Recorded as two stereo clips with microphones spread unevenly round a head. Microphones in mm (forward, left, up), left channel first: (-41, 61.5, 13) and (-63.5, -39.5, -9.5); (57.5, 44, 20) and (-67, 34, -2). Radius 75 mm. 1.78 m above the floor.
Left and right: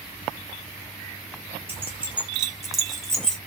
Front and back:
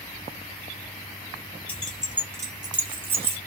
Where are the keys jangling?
25° right, 0.7 m; by 3.4 s 145° left, 1.0 m.